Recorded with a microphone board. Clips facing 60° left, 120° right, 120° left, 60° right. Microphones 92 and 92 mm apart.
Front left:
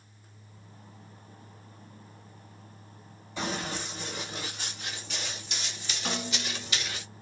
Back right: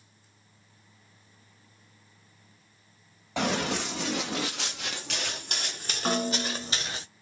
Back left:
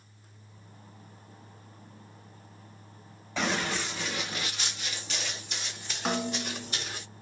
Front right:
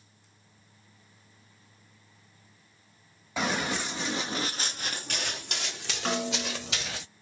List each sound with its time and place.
3.4 s running footsteps: 145° right, 1.7 m; by 7.0 s 60° right, 2 m
6.0 s a snare drum: 155° right, 0.7 m